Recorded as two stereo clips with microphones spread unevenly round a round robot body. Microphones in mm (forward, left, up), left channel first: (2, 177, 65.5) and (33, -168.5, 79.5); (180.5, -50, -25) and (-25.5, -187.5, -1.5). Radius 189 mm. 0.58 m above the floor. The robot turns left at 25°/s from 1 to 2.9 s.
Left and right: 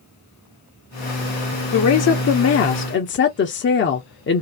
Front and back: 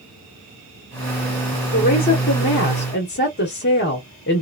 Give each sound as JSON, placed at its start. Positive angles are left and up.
{"t": 1.7, "sound": "a woman speaking", "azimuth_deg": 80, "distance_m": 0.8}